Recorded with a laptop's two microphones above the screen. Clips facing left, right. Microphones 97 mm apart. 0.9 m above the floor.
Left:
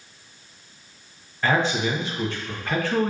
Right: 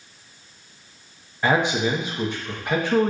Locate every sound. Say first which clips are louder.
1.4 s a man speaking: right 2 dB; 20° right (ahead or behind), 0.7 m